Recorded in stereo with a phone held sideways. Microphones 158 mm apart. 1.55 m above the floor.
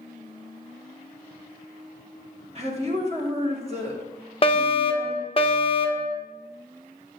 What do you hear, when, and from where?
2.5 s a woman speaking: 40° right (ahead or behind), 2 m
4.4 s a fire alarm: 35° left (ahead or behind), 0.8 m